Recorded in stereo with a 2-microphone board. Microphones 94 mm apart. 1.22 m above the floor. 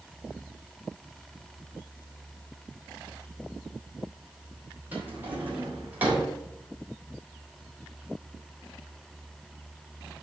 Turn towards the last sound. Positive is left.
turn(degrees=-20)  # may be behind; listen again after turning